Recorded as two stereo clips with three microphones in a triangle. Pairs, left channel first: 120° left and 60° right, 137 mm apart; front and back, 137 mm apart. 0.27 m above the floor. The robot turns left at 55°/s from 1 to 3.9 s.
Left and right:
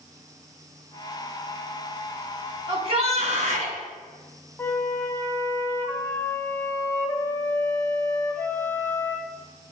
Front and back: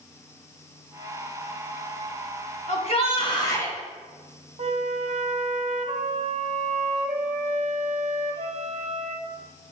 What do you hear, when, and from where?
2.7 s a shout: 15° right, 1.9 m; by 3.8 s 75° right, 1.9 m
4.6 s a flute: 170° right, 0.7 m